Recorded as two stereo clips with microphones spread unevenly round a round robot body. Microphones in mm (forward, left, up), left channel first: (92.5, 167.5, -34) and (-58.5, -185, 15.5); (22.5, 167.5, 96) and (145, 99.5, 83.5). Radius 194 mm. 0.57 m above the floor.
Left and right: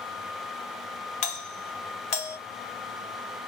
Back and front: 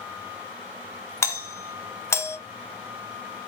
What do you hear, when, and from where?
1.2 s a doorbell: 90° left, 1.1 m